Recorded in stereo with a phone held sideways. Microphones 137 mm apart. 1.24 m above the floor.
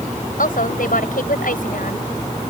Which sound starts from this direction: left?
A woman speaking, at 0.4 s.